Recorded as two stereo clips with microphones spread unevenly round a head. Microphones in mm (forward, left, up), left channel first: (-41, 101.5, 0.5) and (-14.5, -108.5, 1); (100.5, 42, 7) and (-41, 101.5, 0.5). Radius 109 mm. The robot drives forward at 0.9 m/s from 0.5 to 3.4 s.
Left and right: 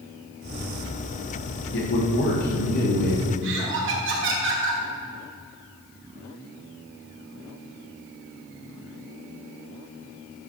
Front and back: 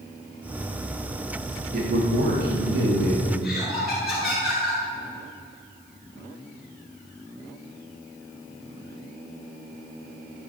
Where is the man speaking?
130° left, 2 m; by 3.3 s 150° left, 3.5 m.